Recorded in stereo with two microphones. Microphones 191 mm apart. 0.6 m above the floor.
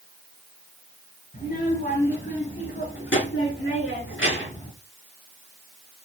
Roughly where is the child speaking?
Left.